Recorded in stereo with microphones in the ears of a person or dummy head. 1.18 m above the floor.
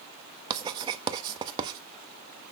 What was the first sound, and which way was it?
Writing, 25° right (ahead or behind).